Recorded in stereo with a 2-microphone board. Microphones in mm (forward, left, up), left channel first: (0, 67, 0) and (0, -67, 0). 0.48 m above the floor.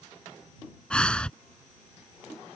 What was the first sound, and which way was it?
Breathing, 10° left (ahead or behind).